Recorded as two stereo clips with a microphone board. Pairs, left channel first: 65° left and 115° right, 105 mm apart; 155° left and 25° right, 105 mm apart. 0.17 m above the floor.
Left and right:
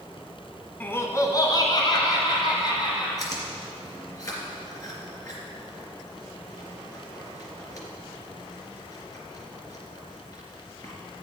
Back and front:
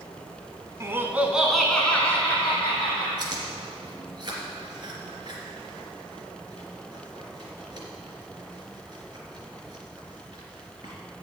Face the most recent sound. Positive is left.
turn(degrees=15)